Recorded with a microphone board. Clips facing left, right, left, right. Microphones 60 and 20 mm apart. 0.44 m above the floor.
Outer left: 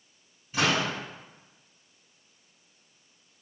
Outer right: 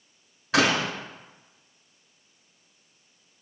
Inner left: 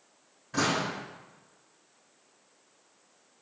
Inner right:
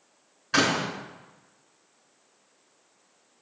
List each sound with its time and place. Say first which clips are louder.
0.5 s a door slam: outer right 4 dB, inner right 4 dB; 80° right, 4 m